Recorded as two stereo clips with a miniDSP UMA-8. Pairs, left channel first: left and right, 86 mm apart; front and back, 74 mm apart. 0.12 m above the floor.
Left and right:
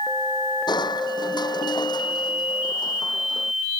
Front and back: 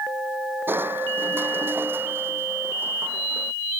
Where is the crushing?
120° left.